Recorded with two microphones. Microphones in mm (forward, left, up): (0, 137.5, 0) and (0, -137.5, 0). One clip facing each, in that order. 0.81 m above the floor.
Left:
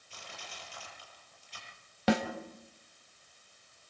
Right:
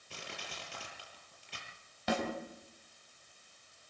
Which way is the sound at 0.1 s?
70° right (ahead or behind).